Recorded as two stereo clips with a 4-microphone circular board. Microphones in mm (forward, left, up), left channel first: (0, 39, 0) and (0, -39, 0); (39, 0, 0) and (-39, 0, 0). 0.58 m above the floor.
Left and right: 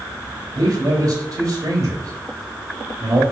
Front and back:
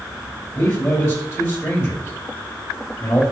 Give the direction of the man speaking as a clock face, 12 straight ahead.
2 o'clock.